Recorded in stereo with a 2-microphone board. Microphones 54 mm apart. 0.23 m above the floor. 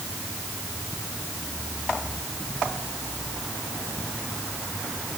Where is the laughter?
I don't hear laughter.